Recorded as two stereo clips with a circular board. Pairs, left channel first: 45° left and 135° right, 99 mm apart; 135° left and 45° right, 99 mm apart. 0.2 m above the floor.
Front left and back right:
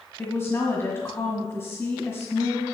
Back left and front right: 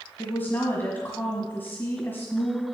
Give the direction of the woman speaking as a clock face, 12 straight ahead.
9 o'clock.